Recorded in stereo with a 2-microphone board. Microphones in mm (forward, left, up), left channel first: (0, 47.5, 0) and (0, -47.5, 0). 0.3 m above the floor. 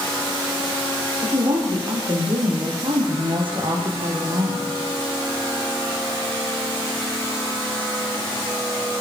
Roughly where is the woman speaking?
Right.